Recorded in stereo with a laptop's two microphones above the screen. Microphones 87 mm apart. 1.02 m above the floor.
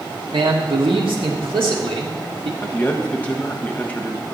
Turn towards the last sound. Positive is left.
turn(degrees=20)  # may be behind; listen again after turning